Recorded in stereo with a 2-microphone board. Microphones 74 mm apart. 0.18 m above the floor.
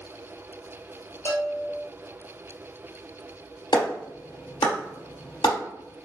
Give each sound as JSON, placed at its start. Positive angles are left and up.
{"t": 1.2, "sound": "a bell", "side_deg": 40, "distance_m": 1.5}
{"t": 3.7, "sound": "a clap", "side_deg": 70, "distance_m": 2.5}